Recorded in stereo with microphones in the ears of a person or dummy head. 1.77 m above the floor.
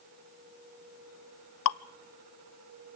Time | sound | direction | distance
1.6 | dripping | 70° left (ahead or behind) | 0.6 m